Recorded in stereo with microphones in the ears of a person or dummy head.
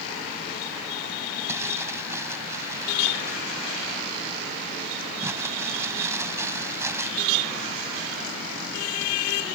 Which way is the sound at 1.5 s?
15° right (ahead or behind).